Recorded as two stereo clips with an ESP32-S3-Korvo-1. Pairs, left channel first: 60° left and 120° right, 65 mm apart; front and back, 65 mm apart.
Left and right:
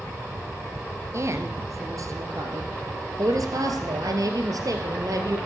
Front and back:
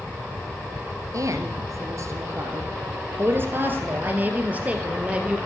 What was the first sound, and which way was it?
A woman speaking, 155° right.